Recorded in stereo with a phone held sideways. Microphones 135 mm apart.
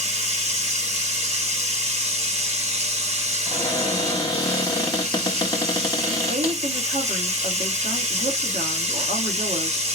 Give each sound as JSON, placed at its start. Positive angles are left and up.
{"t": 0.0, "sound": "running water", "side_deg": -50, "distance_m": 2.5}
{"t": 3.5, "sound": "a cupboard door", "side_deg": 30, "distance_m": 1.4}
{"t": 6.3, "sound": "a woman speaking", "side_deg": -80, "distance_m": 2.0}